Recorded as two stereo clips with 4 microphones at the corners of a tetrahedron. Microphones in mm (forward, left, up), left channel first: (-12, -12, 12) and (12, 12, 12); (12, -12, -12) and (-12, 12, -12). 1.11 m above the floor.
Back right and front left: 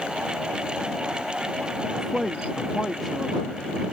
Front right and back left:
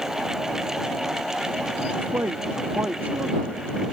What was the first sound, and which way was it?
A man speaking, 135° left.